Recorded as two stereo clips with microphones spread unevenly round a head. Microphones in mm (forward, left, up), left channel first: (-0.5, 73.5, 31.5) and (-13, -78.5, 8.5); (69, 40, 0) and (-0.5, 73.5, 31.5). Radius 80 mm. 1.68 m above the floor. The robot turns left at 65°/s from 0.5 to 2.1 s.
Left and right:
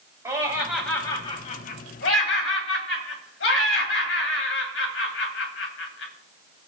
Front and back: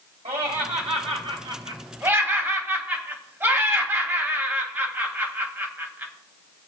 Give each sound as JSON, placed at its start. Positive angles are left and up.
{"t": 0.2, "sound": "laughter", "azimuth_deg": -165, "distance_m": 3.0}